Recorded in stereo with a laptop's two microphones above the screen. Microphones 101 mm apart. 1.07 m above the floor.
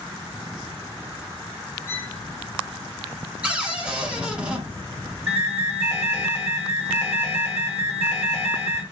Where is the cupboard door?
10° right (ahead or behind), 0.7 m.